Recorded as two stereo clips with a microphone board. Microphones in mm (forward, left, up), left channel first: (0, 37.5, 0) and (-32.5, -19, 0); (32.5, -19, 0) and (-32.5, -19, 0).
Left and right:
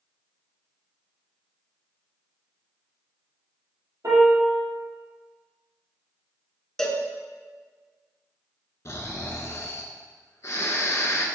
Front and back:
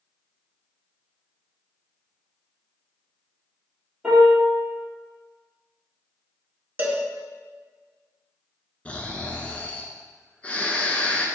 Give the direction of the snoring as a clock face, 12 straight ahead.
10 o'clock.